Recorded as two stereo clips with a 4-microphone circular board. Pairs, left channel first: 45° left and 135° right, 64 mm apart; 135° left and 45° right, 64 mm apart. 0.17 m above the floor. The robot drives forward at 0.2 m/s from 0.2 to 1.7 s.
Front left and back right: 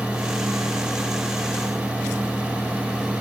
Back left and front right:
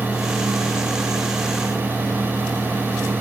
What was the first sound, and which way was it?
Only background noise.